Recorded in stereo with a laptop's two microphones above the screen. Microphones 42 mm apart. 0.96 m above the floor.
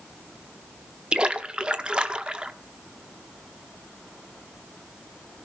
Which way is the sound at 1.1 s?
25° right (ahead or behind).